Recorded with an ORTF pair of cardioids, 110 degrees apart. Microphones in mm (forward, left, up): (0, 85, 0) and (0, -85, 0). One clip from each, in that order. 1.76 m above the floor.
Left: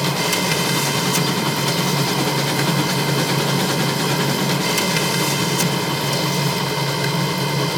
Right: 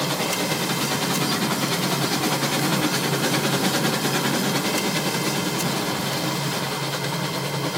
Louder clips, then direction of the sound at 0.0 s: Left 4 dB; 45° left.